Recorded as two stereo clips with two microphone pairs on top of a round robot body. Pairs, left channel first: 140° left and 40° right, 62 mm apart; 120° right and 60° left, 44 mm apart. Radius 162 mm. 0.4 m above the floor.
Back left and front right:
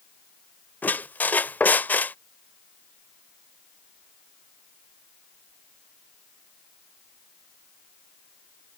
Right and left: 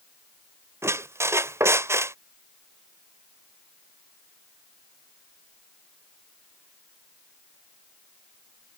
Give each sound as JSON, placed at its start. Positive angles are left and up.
{"t": 0.8, "sound": "a squeak", "azimuth_deg": 75}